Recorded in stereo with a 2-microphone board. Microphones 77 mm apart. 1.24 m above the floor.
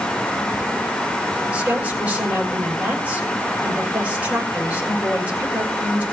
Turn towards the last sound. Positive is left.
turn(degrees=-15)  # may be behind; listen again after turning